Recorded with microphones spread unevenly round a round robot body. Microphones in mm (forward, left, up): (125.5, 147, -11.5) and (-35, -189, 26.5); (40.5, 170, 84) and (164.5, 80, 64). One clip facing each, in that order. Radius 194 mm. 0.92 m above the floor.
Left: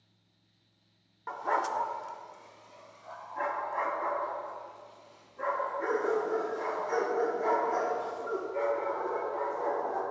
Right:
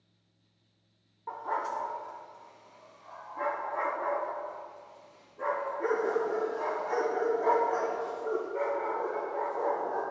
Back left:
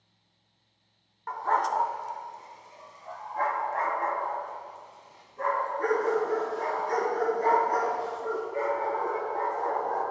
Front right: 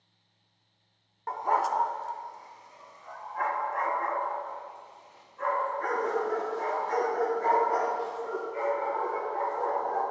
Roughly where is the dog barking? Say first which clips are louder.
Left 3 dB, even; ahead.